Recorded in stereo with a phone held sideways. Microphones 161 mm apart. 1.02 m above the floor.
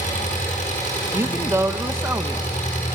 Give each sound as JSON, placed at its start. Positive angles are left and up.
{"t": 0.0, "sound": "an engine running", "side_deg": 50, "distance_m": 8.5}
{"t": 1.1, "sound": "a woman speaking", "side_deg": -15, "distance_m": 1.0}